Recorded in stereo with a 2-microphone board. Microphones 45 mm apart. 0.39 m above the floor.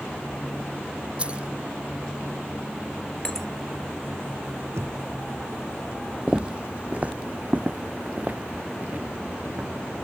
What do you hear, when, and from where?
1.2 s keys jangling: 25° right (ahead or behind)
3.2 s breaking glass: 15° left (ahead or behind)
4.8 s knocking: 70° right (ahead or behind)
6.3 s footsteps: 25° right (ahead or behind); by 9.7 s 40° right (ahead or behind)